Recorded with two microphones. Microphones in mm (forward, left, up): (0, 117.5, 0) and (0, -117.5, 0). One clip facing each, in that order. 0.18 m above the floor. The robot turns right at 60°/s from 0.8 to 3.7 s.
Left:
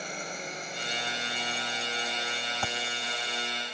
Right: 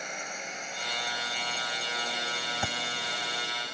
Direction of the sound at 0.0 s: 35° left (ahead or behind).